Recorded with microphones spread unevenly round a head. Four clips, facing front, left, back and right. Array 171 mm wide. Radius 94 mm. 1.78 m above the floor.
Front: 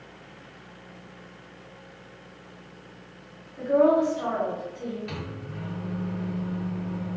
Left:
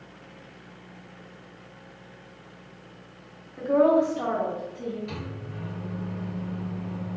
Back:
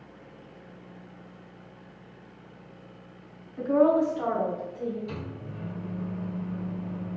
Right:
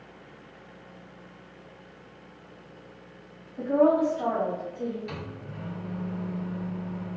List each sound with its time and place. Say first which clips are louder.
3.6 s a woman speaking: left 1 dB, front 1 dB; 105° left, 1.3 m; by 5.0 s 170° right, 1.3 m
5.1 s a microwave: left 2 dB, front 1 dB; 20° right, 1.6 m